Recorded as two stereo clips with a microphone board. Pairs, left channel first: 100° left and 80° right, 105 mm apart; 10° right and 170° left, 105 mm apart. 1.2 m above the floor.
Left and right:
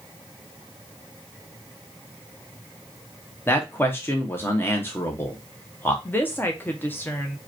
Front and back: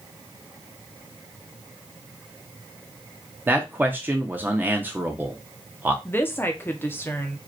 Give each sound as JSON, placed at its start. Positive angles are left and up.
{"t": 3.5, "sound": "a man speaking", "azimuth_deg": 125, "distance_m": 0.7}
{"t": 6.0, "sound": "a woman speaking", "azimuth_deg": 45, "distance_m": 0.6}